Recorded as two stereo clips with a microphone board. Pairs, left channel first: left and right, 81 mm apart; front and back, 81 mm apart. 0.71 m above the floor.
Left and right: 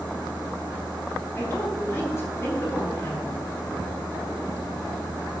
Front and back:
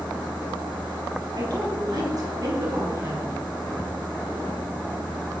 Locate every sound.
1.4 s a woman speaking: 145° left, 4 m